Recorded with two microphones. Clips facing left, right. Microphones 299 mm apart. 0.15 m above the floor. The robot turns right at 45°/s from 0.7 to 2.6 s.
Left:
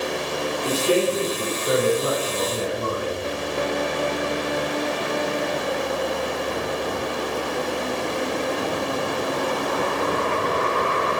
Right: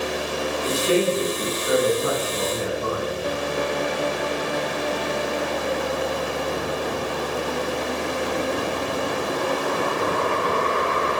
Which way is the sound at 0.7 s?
15° left.